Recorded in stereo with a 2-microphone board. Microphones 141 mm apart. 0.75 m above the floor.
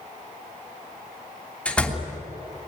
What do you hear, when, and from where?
1.6 s a door slam: 10° left (ahead or behind), 3 m